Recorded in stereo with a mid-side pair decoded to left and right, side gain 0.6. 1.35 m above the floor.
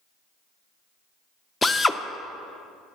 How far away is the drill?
About 0.6 m.